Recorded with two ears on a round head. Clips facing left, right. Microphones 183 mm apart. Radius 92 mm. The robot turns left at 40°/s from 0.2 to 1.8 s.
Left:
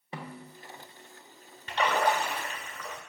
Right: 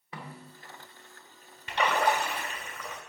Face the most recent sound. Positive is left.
turn(degrees=-15)  # may be behind; listen again after turning